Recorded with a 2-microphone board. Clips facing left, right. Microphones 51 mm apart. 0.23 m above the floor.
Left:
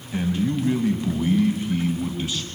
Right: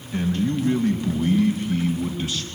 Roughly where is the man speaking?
Centre.